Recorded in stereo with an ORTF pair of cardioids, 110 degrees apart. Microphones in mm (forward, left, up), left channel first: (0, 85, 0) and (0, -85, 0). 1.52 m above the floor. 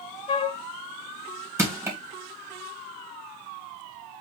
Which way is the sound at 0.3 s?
35° left.